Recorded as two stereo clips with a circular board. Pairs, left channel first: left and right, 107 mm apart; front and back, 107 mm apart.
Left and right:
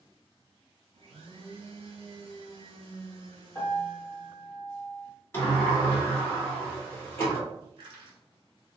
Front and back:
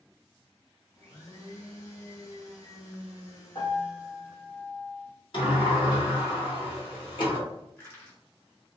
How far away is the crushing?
About 1.8 m.